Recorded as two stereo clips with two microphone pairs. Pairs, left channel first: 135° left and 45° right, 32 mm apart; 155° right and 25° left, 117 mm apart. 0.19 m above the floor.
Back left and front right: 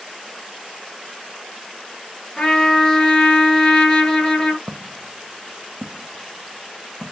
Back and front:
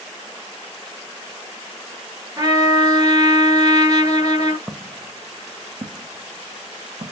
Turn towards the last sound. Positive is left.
turn(degrees=25)